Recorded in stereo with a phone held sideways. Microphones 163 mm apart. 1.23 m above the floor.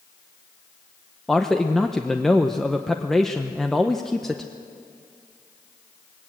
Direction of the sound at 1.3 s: Centre (ahead or behind).